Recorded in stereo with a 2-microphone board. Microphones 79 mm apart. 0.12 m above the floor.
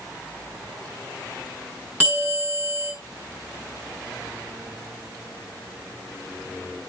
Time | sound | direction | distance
2.0 | a bell | 15° right (ahead or behind) | 8 m